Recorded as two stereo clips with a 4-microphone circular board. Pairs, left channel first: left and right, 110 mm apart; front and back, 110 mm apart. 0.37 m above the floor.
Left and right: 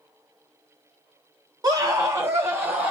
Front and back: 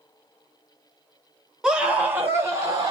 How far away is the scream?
About 1.3 m.